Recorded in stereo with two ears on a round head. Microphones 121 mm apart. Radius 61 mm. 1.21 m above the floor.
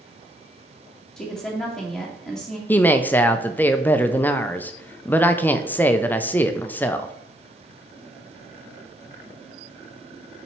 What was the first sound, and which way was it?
A woman speaking, 5° left (ahead or behind).